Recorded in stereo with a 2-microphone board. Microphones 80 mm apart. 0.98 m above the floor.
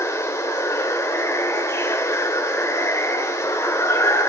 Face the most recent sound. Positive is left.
turn(degrees=40)  # may be behind; listen again after turning